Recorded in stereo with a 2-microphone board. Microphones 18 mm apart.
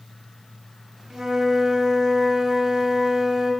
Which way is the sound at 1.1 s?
30° right (ahead or behind).